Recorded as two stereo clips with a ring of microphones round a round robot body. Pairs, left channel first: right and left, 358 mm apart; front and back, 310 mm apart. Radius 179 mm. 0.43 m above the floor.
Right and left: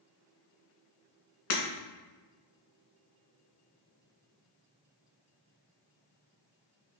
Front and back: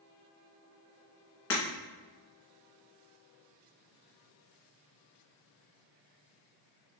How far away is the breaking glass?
About 2 m.